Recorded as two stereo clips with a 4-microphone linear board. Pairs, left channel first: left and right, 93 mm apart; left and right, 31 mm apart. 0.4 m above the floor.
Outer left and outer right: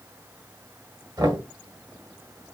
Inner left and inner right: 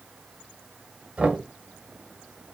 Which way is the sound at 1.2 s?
45° right (ahead or behind).